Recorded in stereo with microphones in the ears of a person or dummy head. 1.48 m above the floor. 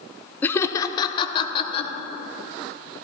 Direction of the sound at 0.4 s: 10° left (ahead or behind).